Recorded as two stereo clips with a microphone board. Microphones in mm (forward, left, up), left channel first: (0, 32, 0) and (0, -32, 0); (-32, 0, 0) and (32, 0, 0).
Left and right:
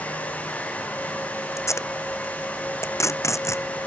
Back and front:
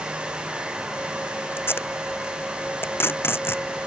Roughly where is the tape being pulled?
Behind left.